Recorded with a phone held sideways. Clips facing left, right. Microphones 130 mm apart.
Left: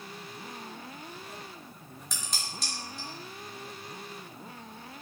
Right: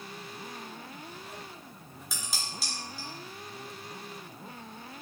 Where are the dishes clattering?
5° right (ahead or behind), 0.7 m.